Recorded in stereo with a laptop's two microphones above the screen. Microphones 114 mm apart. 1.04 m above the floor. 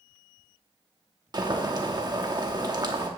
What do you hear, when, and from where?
1.3 s boiling: 35° right (ahead or behind), 1.0 m